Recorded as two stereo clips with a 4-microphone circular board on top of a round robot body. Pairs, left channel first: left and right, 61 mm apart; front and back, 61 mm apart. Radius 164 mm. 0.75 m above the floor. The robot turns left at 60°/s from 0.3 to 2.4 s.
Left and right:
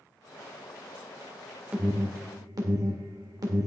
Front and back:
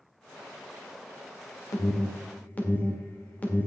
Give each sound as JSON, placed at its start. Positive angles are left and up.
{"t": 1.7, "sound": "an alarm", "azimuth_deg": -25, "distance_m": 1.9}